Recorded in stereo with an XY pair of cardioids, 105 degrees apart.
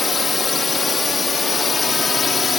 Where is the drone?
45° left; by 2.6 s 40° left.